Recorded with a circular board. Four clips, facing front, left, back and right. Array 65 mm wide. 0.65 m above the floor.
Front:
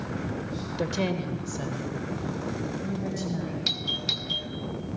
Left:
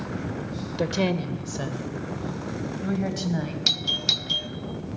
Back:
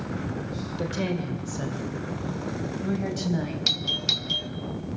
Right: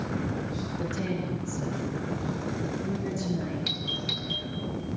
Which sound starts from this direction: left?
A woman speaking, at 0.8 s.